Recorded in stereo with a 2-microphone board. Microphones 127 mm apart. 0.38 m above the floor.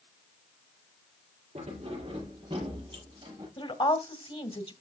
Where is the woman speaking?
45° left (ahead or behind), 1.6 m.